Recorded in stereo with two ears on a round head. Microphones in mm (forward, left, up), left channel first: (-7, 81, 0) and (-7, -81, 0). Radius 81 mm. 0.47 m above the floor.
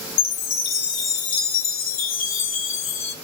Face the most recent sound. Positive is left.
turn(degrees=85)